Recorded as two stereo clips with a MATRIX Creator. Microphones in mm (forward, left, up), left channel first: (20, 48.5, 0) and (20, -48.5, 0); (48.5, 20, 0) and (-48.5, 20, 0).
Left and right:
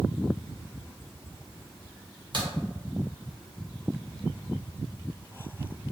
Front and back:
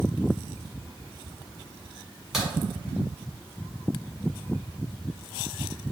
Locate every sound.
2.3 s a crack: 95° right, 1.4 m